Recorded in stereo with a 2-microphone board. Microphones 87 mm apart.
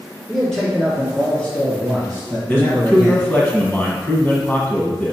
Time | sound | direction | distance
0.3 | a man speaking | 5° right (ahead or behind) | 2.5 m
2.5 | a man speaking | 20° left (ahead or behind) | 1.3 m